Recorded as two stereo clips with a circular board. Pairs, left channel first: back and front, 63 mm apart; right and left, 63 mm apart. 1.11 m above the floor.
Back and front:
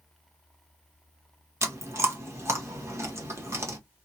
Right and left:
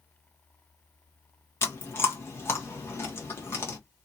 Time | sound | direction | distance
1.6 | chewing | 45° right | 1.0 m